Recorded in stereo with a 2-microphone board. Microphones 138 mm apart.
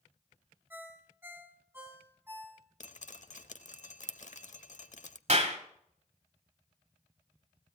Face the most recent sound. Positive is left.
turn(degrees=-55)  # may be behind; listen again after turning